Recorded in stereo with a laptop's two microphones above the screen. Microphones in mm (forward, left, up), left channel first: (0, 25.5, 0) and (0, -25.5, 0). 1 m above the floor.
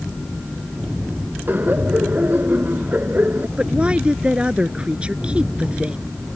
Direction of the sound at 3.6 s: 20° right (ahead or behind).